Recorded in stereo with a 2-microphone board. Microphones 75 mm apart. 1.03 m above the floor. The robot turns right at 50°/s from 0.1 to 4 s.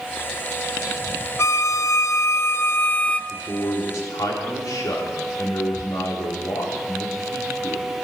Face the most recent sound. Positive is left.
turn(degrees=55)